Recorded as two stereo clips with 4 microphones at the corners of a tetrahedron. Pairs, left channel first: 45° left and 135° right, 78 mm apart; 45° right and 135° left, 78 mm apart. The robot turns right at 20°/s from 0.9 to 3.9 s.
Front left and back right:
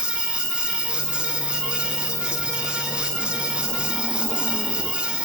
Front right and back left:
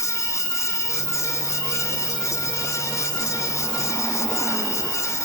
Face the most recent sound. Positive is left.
turn(degrees=-60)